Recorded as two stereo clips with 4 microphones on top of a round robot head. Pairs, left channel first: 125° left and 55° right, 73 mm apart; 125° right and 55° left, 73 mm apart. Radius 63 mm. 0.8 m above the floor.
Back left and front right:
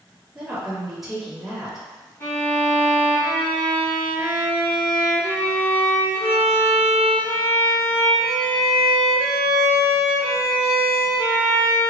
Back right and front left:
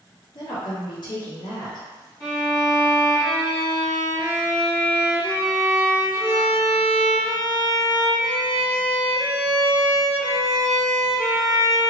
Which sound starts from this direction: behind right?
A woman speaking, at 0.3 s.